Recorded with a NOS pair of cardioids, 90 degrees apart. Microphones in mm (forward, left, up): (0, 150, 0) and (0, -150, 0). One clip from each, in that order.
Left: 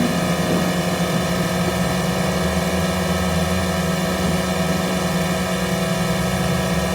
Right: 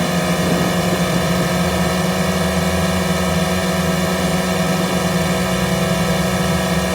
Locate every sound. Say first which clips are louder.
0.0 s a drone: right 2 dB; 20° right